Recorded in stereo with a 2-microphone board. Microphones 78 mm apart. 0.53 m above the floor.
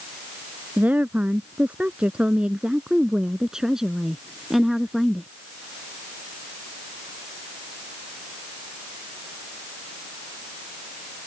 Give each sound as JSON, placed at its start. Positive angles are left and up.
{"t": 0.8, "sound": "a woman speaking", "side_deg": -20}